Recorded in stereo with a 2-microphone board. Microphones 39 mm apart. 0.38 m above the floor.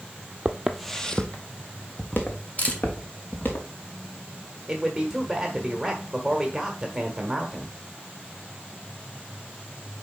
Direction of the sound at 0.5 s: 25° right (ahead or behind).